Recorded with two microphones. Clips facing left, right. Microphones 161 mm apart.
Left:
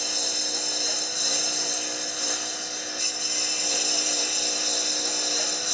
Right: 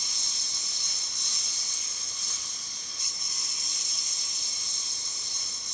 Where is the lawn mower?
70° left (ahead or behind); by 5.7 s 75° left (ahead or behind).